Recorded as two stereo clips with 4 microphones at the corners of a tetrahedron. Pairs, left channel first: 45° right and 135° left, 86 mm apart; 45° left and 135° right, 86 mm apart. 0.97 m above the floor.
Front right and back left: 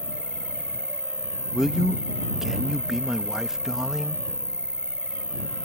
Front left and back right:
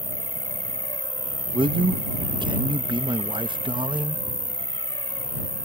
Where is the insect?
60° left.